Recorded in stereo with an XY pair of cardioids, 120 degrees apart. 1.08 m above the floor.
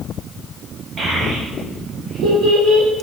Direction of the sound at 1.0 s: 40° right.